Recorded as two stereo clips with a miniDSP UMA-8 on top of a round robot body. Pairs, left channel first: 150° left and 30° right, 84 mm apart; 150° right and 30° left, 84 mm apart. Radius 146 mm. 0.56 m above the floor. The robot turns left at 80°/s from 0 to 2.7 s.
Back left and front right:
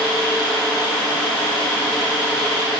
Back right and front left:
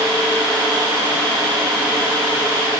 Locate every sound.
Only background noise.